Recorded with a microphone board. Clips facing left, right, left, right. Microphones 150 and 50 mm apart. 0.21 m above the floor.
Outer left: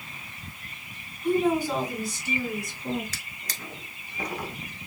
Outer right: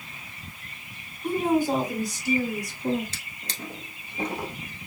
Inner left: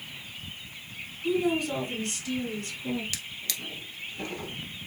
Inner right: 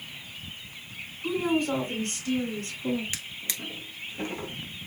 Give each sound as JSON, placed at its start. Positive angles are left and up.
{"t": 1.2, "sound": "a woman speaking", "side_deg": -45, "distance_m": 2.0}
{"t": 3.1, "sound": "a drawer", "side_deg": -25, "distance_m": 1.1}